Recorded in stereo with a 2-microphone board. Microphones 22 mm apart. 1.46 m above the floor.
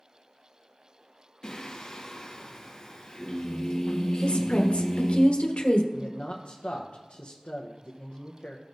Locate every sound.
1.4 s singing: 30° left (ahead or behind), 1.3 m
4.2 s a woman speaking: 60° left (ahead or behind), 1.2 m
5.9 s a man speaking: 55° left (ahead or behind), 0.8 m